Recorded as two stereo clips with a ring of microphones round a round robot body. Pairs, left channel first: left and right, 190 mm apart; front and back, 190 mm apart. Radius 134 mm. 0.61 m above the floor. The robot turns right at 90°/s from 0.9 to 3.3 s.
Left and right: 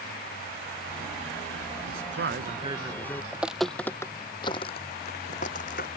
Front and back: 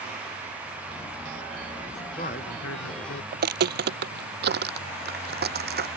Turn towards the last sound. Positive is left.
turn(degrees=150)